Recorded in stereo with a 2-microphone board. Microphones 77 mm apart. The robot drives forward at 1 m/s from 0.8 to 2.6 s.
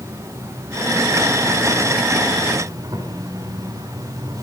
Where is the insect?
35° right (ahead or behind), 9 m; by 4.4 s 45° right (ahead or behind), 7.5 m.